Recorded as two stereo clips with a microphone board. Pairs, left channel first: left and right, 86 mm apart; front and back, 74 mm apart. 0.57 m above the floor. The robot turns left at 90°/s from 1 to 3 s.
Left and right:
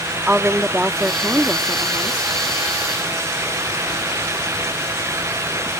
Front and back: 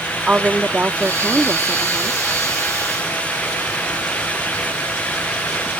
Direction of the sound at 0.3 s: 140° right.